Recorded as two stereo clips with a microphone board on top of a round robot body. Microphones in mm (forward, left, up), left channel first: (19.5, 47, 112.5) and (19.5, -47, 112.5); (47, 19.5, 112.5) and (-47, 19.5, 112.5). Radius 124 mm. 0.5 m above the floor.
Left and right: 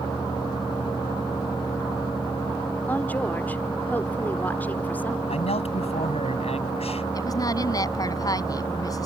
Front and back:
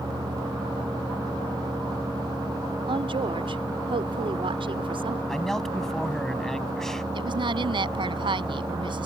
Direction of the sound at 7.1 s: 145° left.